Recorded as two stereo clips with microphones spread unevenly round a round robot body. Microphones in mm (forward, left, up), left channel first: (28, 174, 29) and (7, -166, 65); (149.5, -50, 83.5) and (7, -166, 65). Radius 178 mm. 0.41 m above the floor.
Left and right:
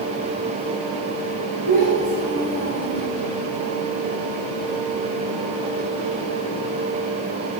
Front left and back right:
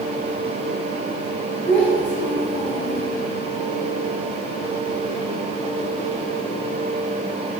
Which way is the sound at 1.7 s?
115° right.